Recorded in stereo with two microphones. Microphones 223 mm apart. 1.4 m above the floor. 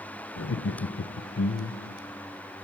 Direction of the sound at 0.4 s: 65° left (ahead or behind).